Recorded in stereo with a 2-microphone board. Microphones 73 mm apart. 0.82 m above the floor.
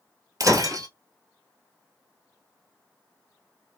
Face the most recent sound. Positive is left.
turn(degrees=-50)  # may be behind; listen again after turning